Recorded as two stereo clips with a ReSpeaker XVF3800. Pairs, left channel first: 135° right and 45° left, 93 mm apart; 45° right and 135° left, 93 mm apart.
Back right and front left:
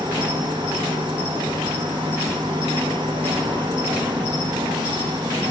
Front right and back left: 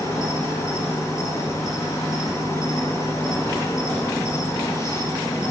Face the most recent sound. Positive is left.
turn(degrees=15)